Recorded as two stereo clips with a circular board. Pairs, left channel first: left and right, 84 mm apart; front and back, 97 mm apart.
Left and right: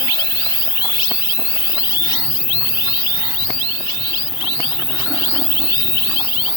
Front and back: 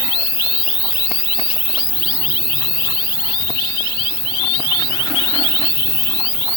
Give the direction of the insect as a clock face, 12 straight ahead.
8 o'clock.